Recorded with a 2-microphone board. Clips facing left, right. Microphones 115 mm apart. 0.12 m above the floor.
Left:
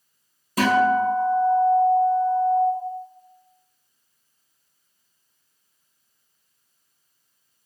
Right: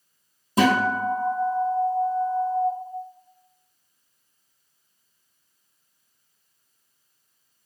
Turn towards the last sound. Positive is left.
turn(degrees=-25)  # may be behind; listen again after turning